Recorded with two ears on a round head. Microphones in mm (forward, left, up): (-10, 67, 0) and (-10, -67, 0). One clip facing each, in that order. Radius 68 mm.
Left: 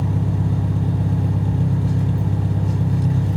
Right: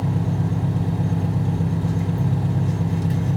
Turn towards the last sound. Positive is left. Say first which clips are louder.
# left 1 dB
turn(degrees=-15)  # may be behind; listen again after turning